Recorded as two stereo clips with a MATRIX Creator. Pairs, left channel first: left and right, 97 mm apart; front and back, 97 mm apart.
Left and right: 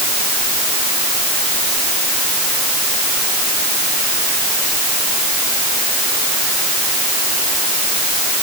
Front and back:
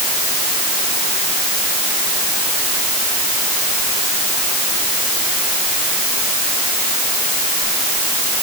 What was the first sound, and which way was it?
Only background noise.